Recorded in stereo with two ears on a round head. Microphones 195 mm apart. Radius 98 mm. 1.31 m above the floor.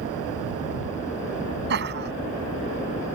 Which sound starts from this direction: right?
Laughter, at 1.7 s.